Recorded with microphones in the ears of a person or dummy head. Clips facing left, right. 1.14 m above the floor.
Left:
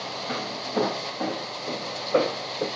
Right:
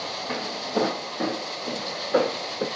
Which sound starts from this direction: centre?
Footsteps, at 0.3 s.